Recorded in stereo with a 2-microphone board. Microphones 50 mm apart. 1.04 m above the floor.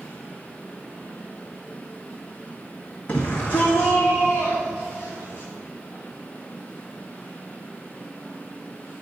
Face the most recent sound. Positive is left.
turn(degrees=45)  # may be behind; listen again after turning